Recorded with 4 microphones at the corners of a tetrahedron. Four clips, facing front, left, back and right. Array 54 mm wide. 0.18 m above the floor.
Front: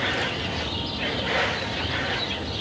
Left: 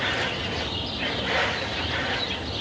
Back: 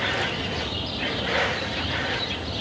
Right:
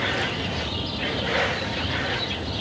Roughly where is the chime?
No chime in this recording.